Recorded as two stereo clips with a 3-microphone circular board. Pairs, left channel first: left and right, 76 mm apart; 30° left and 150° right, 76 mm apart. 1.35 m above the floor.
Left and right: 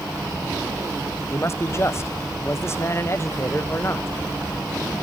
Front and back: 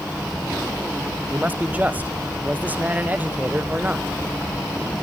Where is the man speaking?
145° left, 1.0 m.